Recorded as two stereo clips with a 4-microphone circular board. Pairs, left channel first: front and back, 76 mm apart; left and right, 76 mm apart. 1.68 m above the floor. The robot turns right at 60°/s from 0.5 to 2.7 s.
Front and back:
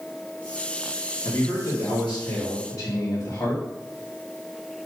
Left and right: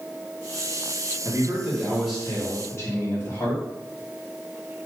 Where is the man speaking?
50° right, 2 m; by 3.6 s 40° left, 2 m.